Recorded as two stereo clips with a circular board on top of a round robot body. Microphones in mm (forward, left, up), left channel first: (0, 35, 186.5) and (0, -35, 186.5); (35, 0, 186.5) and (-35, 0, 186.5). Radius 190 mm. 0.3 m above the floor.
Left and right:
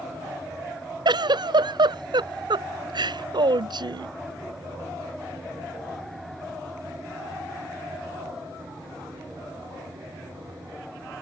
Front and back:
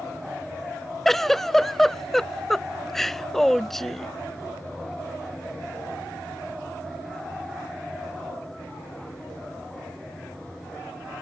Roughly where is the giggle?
Right.